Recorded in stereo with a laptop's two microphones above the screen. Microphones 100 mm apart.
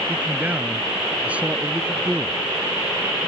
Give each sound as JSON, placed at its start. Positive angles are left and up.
{"t": 0.1, "sound": "a man speaking", "side_deg": -15}